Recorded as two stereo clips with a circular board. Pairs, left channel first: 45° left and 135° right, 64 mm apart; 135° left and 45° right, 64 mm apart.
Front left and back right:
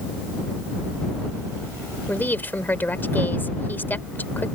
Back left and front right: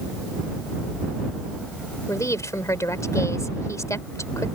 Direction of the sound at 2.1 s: 105° left.